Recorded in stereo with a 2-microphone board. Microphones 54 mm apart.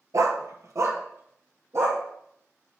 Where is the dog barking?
75° right (ahead or behind), 0.7 m; by 2.0 s 55° right (ahead or behind), 1.6 m.